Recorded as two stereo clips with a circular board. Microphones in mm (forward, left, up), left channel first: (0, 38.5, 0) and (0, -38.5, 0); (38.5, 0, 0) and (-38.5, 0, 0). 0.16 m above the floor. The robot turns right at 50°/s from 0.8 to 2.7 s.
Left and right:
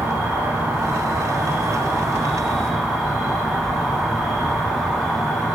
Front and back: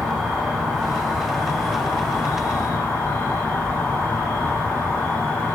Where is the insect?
100° right, 1.5 m; by 5.5 s 5° right, 1.5 m.